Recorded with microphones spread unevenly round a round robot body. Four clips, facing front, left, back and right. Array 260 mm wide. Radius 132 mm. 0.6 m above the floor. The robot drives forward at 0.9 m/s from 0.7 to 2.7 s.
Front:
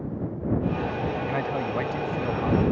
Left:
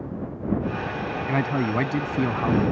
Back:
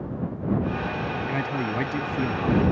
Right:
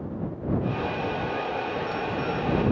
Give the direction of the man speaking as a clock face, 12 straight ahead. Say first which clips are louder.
Left 4 dB, even; 9 o'clock.